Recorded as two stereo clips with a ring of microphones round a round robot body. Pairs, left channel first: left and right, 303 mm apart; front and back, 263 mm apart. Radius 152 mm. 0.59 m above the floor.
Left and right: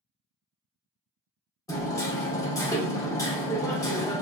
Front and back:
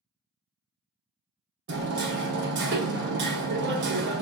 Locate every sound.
1.7 s hammering: 165° left, 0.7 m